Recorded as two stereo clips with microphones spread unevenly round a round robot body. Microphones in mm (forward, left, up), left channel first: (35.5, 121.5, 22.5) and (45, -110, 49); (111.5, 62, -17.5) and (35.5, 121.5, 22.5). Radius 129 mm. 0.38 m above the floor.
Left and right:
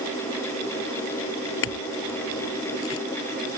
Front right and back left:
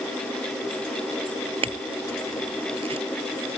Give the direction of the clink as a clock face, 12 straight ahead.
8 o'clock.